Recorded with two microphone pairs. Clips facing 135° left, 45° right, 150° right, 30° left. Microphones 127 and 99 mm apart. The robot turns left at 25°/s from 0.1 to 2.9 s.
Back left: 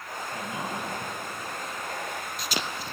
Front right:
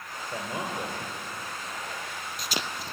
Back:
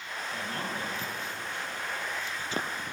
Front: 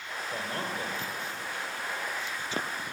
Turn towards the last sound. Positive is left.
turn(degrees=-75)